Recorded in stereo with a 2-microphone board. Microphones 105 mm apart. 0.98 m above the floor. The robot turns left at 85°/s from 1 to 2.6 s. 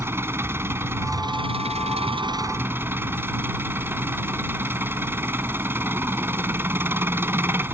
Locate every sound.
0.0 s an engine running: 25° right; by 7.8 s 160° right